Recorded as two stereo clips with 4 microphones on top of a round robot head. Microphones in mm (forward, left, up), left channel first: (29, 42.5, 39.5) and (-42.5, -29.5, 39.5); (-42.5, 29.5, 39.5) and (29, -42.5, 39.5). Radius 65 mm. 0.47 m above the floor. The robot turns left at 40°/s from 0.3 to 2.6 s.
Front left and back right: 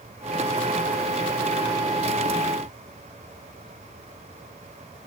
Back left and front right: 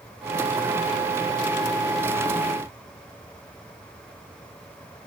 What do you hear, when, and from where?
Only background noise.